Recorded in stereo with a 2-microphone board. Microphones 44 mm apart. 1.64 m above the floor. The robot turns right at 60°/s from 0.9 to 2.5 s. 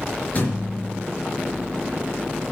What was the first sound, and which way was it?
A thud, 35° left (ahead or behind).